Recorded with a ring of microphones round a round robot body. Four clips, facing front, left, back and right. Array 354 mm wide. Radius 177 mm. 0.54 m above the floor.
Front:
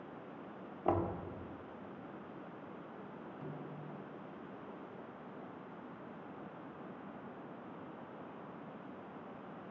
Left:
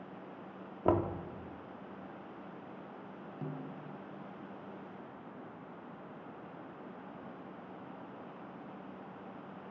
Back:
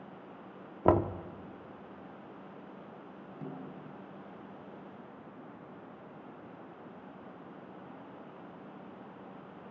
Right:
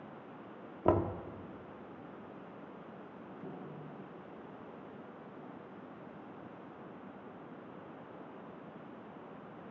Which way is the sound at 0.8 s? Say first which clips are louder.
Even, back 8 dB; straight behind.